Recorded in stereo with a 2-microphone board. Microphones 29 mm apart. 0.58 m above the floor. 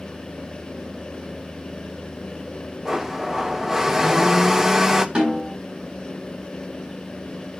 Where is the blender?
20° right (ahead or behind), 1.4 m.